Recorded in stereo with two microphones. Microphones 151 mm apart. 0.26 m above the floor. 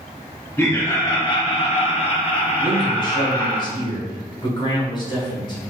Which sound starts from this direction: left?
A man speaking, at 2.6 s.